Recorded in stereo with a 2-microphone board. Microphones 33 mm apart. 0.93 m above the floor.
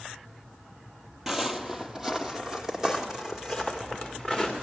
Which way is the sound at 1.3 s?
10° right (ahead or behind).